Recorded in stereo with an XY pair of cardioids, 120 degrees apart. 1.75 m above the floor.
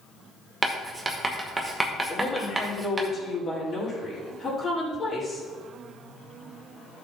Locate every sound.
0.6 s writing: 15° right, 2 m
2.1 s a woman speaking: 35° left, 5.5 m